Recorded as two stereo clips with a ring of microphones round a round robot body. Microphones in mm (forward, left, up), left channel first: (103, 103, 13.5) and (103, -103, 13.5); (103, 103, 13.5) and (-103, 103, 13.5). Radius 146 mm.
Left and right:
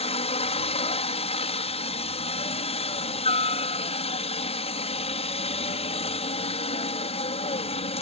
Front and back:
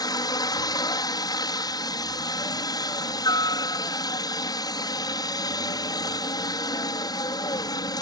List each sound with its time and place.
0.0 s a helicopter: 55° left